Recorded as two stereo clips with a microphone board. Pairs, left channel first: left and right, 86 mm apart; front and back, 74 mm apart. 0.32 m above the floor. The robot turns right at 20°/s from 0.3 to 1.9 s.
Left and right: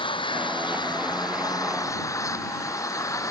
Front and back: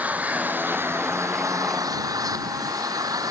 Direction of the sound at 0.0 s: 110° left.